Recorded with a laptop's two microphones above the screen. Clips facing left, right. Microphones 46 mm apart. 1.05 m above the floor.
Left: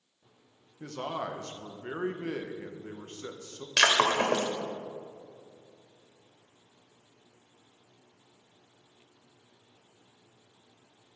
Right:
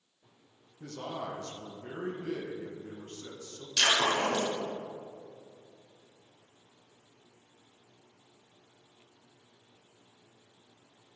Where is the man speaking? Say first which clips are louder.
Left 3 dB; 50° left (ahead or behind), 0.9 m.